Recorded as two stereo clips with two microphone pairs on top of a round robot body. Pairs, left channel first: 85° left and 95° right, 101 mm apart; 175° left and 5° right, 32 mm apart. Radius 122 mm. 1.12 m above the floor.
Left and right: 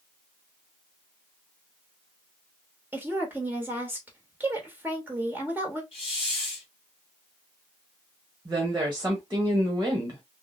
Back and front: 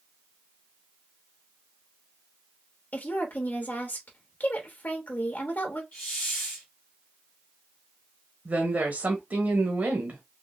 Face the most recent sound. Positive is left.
turn(degrees=-25)